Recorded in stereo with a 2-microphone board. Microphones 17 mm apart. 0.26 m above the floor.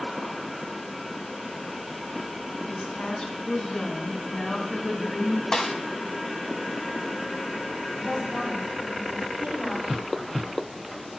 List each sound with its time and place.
2.7 s a woman speaking: 60° left (ahead or behind), 2 m; by 5.4 s 10° left (ahead or behind), 1.6 m
5.5 s a snare drum: 35° left (ahead or behind), 1.1 m
8.0 s a woman speaking: 45° right (ahead or behind), 6 m